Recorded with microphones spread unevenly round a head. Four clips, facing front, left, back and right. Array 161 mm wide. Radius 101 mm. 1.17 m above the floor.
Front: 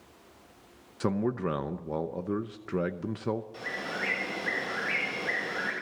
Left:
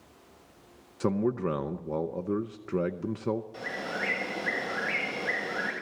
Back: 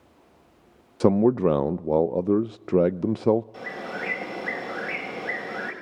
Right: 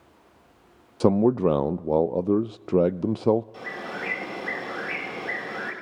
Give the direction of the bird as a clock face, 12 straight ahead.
7 o'clock.